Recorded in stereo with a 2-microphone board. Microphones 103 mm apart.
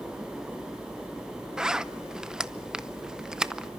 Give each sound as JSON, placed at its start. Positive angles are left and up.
{"t": 1.6, "sound": "a zipper", "side_deg": -5, "distance_m": 0.6}